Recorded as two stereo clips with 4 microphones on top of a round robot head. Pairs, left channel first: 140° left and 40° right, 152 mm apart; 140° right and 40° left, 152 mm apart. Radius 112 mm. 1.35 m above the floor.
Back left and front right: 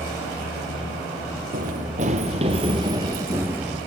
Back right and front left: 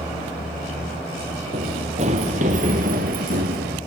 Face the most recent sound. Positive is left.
turn(degrees=45)